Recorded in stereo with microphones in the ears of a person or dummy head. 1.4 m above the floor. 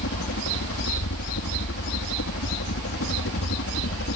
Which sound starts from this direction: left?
A helicopter, at 0.0 s.